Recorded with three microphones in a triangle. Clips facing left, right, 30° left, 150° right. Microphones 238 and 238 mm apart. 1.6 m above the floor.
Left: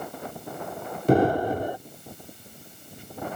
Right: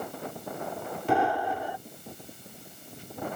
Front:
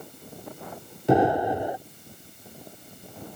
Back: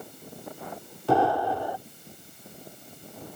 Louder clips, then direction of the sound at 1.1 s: Left 7 dB, front 3 dB; 90° left.